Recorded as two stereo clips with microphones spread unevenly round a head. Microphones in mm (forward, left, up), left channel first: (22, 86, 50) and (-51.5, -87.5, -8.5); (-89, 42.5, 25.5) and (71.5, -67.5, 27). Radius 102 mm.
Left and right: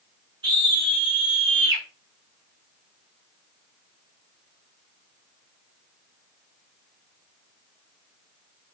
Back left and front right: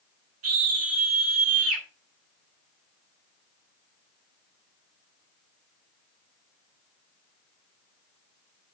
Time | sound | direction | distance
0.4 | a scream | 45° right | 7.5 m